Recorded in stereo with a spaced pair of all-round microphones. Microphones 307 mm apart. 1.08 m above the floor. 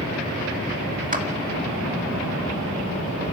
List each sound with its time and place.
1.1 s a clap: 25° right (ahead or behind), 2.5 m